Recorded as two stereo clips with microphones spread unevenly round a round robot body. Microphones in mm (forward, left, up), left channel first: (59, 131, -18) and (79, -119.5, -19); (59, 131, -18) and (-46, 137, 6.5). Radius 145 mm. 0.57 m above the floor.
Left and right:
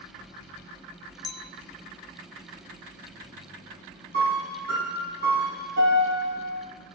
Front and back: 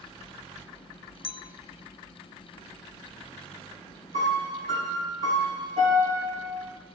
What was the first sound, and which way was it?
A clink, 20° left.